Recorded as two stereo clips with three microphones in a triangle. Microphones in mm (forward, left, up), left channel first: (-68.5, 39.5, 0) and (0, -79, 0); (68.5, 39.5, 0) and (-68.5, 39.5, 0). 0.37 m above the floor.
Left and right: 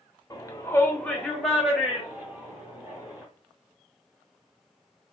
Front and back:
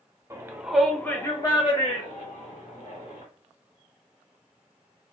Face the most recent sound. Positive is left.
turn(degrees=15)